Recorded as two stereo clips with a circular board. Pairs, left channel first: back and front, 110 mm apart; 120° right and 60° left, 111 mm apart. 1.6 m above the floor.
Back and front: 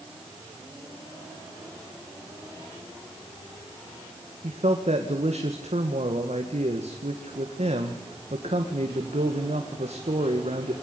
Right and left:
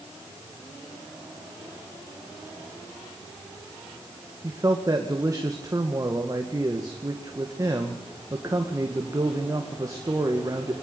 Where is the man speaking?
Straight ahead, 2 m.